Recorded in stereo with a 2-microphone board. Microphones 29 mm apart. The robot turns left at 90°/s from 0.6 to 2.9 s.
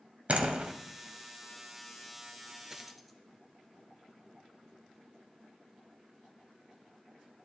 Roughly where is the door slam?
Right.